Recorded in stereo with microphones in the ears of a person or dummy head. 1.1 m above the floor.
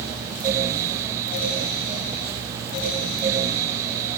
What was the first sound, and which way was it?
Only background noise.